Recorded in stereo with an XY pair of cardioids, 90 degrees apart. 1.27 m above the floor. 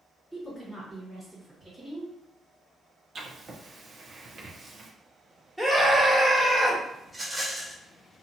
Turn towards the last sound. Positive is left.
turn(degrees=-10)